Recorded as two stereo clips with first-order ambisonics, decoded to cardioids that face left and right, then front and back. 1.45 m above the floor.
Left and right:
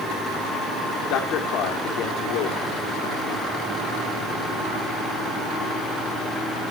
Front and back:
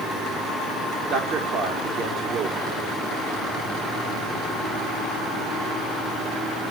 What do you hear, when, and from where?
1.1 s a man speaking: 130° left, 3 m